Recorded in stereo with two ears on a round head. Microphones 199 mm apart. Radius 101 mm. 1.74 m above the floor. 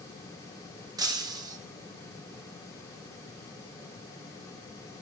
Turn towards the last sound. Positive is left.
turn(degrees=-15)  # may be behind; listen again after turning